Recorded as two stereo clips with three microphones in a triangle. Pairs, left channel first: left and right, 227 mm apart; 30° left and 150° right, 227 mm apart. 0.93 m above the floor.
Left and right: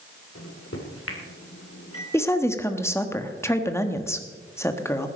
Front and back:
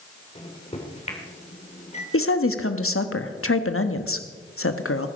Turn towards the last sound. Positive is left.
turn(degrees=10)